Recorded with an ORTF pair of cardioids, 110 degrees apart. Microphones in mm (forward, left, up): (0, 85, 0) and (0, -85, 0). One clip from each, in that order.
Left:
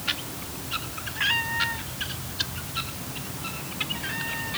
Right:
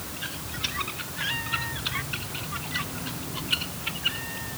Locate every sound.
1.1 s a cat meowing: 35° left